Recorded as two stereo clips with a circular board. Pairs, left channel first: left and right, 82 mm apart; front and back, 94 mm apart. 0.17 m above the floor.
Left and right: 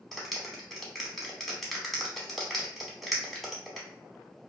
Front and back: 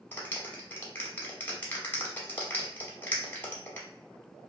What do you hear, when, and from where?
0.1 s a clap: 5° left, 0.8 m